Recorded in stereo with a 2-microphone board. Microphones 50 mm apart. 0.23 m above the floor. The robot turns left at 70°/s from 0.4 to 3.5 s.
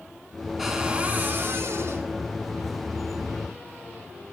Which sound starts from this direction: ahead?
A cupboard door, at 0.6 s.